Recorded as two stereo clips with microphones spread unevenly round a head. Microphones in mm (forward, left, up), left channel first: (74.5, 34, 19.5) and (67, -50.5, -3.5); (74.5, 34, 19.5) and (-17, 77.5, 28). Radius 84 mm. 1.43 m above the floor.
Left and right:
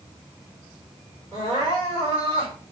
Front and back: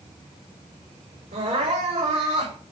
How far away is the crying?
About 4 m.